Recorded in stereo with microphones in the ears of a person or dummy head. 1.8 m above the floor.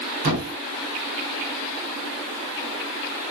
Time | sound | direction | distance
0.2 | a thud | 65° right (ahead or behind) | 4 m